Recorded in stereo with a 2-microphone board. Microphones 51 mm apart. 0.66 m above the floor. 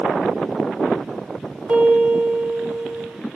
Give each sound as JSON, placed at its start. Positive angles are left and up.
{"t": 1.7, "sound": "a piano", "side_deg": -30, "distance_m": 1.9}